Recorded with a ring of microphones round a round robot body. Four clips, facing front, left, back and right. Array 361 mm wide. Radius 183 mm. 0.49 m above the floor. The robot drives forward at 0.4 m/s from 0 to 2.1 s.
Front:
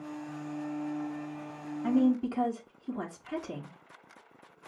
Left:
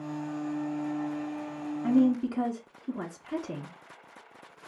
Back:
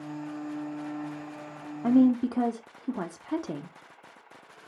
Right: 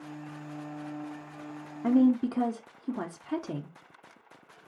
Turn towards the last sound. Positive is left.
turn(degrees=-150)